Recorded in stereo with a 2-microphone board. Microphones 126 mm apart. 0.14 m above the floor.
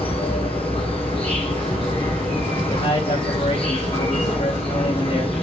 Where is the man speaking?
75° left (ahead or behind), 5 m.